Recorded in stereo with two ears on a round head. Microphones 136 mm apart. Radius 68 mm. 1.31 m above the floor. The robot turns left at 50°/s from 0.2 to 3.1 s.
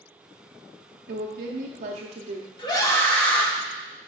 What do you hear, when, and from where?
1.1 s a woman speaking: 80° right, 0.7 m; by 2.5 s 150° right, 0.7 m
2.6 s a scream: 30° left (ahead or behind), 1.4 m; by 3.5 s 10° left (ahead or behind), 1.4 m